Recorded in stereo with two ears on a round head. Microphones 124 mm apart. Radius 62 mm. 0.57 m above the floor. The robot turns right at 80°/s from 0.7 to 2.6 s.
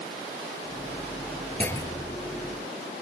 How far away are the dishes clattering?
I don't hear dishes clattering.